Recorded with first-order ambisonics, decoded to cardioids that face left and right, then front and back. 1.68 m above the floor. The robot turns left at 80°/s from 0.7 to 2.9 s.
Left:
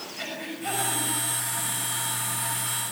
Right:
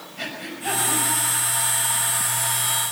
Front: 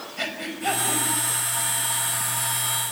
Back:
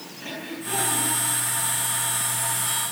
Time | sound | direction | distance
0.2 | breathing | 5° right | 6 m